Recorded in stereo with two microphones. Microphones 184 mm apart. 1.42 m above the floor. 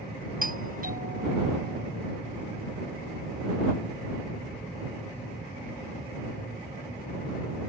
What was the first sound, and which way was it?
A doorbell, 50° right (ahead or behind).